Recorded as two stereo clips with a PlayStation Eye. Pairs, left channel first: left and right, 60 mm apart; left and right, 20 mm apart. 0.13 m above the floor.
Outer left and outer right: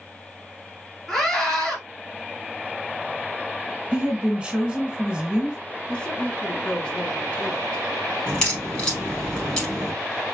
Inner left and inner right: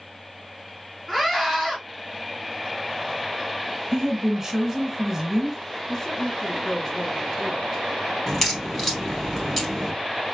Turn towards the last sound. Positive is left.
turn(degrees=15)  # may be behind; listen again after turning